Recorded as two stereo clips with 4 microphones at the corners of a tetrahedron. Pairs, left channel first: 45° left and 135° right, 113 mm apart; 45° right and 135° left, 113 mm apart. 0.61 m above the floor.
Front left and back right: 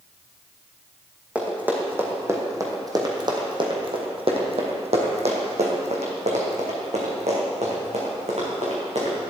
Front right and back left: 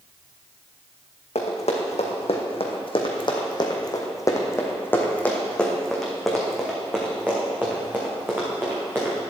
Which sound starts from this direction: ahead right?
Running footsteps, at 1.4 s.